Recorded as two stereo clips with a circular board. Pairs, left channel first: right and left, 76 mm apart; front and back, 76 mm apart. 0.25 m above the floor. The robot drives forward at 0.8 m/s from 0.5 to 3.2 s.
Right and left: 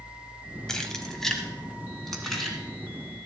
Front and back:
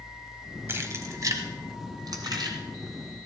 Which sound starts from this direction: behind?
Keys jangling, at 0.7 s.